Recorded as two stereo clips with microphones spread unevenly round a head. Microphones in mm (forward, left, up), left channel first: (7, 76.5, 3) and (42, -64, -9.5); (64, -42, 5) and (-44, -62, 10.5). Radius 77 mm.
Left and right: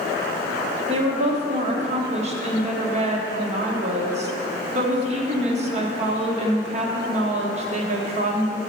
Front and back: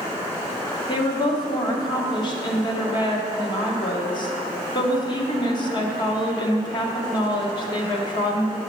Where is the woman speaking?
35° right, 1.1 m.